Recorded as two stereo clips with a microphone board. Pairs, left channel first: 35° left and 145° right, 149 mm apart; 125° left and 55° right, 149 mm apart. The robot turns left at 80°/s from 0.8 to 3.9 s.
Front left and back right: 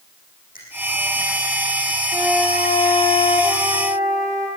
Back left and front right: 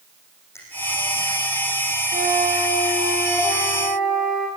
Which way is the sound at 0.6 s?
55° left.